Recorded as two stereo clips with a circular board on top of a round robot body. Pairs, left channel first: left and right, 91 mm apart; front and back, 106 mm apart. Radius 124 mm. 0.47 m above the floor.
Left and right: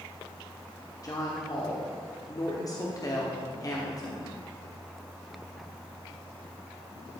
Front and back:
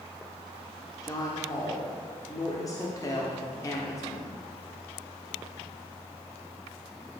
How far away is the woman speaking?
About 1.4 m.